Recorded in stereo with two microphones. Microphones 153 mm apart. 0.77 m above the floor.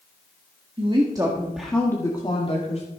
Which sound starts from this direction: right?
A woman speaking, at 0.8 s.